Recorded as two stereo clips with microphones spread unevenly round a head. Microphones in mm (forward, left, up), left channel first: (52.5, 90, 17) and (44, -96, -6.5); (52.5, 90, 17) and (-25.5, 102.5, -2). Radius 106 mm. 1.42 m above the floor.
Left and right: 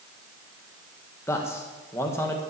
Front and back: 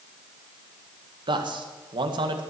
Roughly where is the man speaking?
Behind.